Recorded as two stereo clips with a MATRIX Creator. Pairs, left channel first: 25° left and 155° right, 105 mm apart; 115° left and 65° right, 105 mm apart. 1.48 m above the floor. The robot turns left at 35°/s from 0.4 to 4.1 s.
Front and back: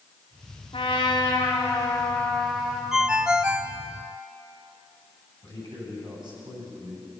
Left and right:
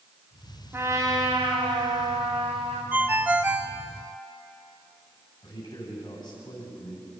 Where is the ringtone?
85° right, 0.8 m; by 3.8 s 120° right, 0.8 m.